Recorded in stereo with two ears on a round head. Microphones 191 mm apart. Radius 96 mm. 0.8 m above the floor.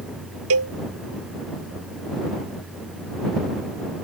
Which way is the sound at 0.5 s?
75° right (ahead or behind).